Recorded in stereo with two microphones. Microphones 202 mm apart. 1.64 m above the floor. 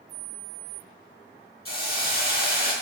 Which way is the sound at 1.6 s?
50° left (ahead or behind).